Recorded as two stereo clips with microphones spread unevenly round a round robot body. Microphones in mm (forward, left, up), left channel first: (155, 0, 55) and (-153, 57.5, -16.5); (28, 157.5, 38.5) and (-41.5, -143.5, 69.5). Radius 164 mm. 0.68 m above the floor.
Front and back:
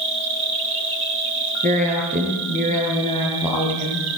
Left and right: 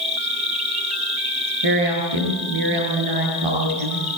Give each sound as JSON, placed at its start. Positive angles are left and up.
{"t": 0.0, "sound": "an insect", "azimuth_deg": -170, "distance_m": 7.0}
{"t": 1.6, "sound": "a woman speaking", "azimuth_deg": -120, "distance_m": 10.0}